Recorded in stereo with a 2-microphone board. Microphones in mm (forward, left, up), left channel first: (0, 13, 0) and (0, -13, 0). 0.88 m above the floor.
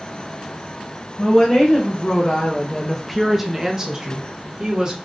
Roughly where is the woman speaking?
Left.